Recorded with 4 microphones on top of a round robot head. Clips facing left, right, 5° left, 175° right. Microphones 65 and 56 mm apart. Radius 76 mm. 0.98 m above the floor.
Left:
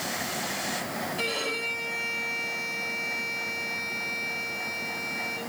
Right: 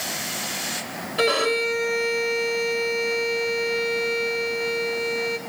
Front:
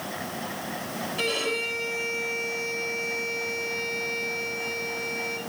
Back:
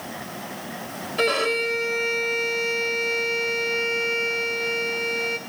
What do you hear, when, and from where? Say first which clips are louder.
1.2 s a violin: right 15 dB, back 7 dB; 125° right, 3.5 m